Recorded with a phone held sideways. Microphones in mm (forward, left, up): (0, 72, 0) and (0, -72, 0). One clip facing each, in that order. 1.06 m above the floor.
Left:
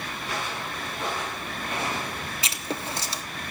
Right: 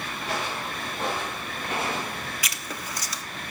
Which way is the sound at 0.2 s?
75° right (ahead or behind).